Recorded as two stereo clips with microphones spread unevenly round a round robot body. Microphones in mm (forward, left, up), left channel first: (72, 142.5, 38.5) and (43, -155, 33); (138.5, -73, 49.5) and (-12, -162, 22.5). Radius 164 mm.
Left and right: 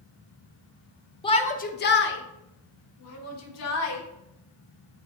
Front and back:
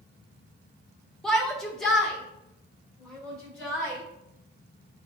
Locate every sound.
1.2 s a shout: 135° left, 0.6 m; by 4.0 s 120° left, 1.8 m